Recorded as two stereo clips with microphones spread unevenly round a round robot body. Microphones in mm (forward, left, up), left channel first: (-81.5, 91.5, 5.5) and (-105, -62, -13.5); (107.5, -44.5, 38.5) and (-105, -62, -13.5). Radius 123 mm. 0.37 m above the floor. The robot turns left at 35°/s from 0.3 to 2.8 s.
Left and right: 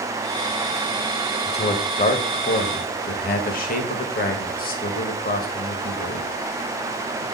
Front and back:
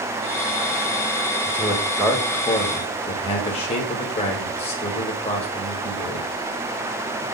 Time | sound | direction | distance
1.5 | a man speaking | 120° left | 1.9 m